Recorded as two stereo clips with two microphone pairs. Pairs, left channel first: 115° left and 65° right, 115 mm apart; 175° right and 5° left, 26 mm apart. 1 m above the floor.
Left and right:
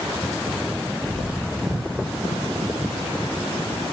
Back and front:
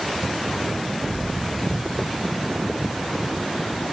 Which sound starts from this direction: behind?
An explosion, at 1.1 s.